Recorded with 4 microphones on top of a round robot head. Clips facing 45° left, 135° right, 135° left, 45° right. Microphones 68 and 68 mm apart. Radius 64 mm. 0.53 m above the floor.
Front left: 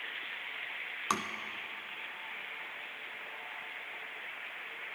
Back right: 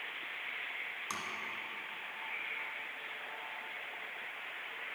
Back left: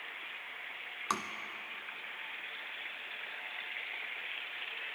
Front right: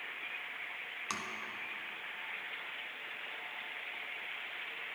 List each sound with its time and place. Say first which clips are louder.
1.1 s tapping: front left 10 dB, back left 6 dB; 85° left, 0.9 m